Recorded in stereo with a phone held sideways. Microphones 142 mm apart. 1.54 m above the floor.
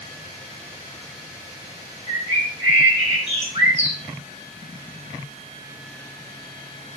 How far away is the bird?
About 4.5 m.